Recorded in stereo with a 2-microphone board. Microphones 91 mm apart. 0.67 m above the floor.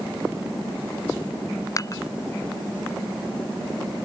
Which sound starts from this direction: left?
Dishes clattering, at 1.8 s.